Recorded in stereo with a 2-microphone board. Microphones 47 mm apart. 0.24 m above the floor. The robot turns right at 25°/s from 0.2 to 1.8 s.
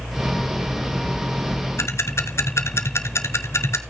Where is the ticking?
70° left (ahead or behind), 0.9 m.